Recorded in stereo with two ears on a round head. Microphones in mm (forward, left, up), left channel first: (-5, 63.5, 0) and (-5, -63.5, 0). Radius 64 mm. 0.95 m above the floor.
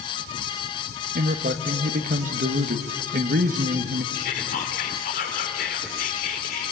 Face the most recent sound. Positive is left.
turn(degrees=60)  # may be behind; listen again after turning